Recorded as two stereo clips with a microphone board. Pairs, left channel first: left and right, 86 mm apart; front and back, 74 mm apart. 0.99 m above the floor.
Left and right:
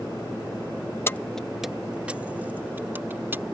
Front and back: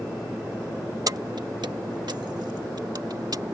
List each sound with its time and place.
1.1 s keys jangling: 150° left; by 3.4 s 155° right